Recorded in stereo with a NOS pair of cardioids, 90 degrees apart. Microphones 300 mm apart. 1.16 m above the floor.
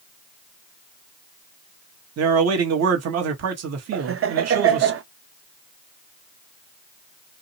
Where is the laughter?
45° right, 0.9 m.